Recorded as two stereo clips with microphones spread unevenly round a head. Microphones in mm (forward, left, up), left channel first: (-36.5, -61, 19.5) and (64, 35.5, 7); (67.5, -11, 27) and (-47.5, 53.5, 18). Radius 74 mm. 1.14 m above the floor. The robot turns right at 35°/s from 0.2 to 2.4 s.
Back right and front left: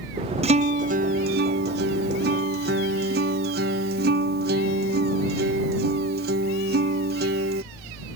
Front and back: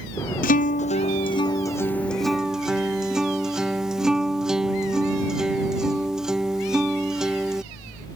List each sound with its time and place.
0.4 s a guitar: 5° right; by 7.6 s 65° left